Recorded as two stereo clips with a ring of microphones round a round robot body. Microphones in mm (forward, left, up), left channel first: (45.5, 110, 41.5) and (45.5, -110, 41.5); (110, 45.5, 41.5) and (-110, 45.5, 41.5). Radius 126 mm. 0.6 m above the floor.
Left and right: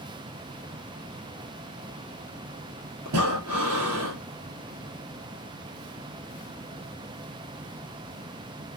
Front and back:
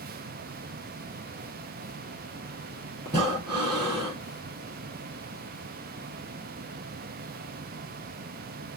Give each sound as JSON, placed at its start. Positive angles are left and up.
{"t": 3.0, "sound": "breathing", "azimuth_deg": -105, "distance_m": 3.0}